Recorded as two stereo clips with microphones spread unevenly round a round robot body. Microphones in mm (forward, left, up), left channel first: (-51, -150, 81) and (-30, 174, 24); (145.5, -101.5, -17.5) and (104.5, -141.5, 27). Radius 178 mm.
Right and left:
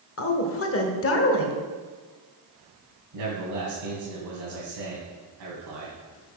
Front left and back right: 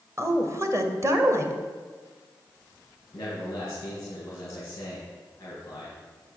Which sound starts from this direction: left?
A man speaking, at 3.1 s.